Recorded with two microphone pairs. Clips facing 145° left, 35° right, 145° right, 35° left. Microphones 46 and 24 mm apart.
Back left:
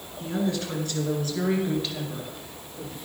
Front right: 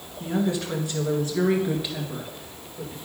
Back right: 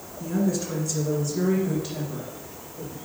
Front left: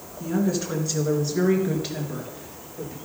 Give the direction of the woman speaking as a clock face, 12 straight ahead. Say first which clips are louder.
Front right 2 dB, front left 1 dB; 12 o'clock.